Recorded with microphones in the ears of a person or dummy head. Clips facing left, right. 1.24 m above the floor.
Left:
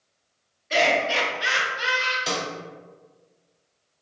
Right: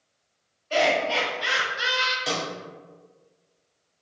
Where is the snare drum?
Centre (ahead or behind), 1.3 m.